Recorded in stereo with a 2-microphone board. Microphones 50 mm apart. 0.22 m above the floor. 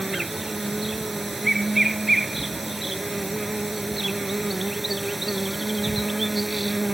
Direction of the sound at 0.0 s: Centre (ahead or behind).